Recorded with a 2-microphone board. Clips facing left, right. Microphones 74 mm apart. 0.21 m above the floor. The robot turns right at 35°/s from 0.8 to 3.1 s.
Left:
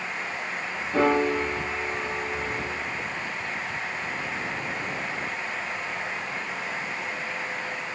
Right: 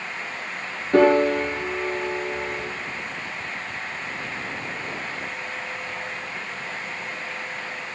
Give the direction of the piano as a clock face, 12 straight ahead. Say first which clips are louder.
Right 6 dB; 3 o'clock.